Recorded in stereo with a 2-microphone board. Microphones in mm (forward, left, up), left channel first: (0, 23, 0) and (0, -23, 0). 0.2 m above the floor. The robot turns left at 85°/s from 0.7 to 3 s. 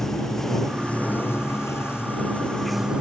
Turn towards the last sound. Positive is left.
turn(degrees=-25)